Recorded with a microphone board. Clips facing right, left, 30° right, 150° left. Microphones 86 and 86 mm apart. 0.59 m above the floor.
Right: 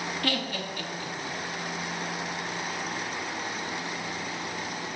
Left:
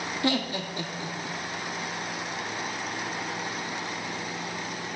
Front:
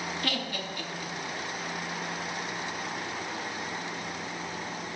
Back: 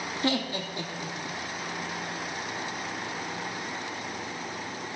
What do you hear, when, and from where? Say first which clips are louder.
0.2 s laughter: left 6 dB, back 5 dB; 125° left, 0.7 m